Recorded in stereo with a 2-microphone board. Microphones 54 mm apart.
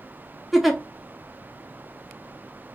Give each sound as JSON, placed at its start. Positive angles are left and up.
{"t": 0.5, "sound": "a giggle", "side_deg": -5, "distance_m": 0.7}